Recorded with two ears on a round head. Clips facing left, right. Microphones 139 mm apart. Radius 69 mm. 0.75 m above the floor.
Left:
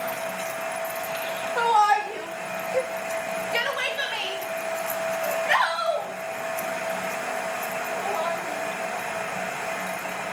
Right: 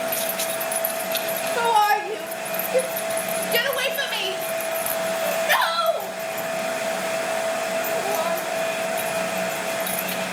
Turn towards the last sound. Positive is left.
turn(degrees=-40)  # may be behind; listen again after turning